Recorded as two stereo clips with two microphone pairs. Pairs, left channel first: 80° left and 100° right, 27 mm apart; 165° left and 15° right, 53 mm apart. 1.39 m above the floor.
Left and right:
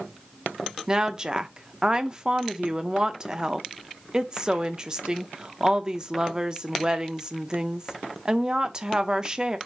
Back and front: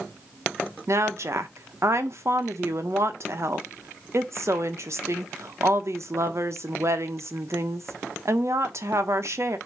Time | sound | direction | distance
0.9 | a woman speaking | 40° right | 0.9 m